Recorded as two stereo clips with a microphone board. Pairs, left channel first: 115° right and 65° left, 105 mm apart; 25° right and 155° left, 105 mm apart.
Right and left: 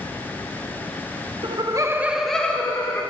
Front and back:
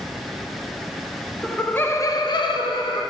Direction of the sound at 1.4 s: 65° left.